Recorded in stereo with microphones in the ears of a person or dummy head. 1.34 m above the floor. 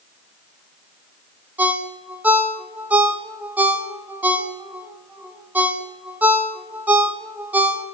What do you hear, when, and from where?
1.6 s a ringtone: 10° right (ahead or behind), 0.7 m